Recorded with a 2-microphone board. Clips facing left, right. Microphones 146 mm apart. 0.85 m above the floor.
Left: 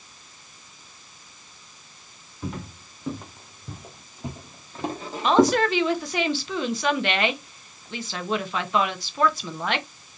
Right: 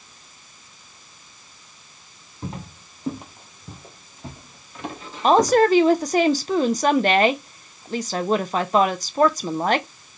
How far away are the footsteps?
About 2 m.